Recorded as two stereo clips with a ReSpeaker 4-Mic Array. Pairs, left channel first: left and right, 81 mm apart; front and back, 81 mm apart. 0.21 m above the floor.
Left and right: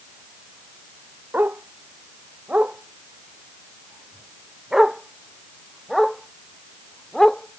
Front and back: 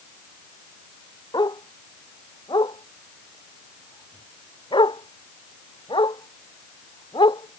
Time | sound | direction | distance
1.3 | a dog barking | 25° right | ?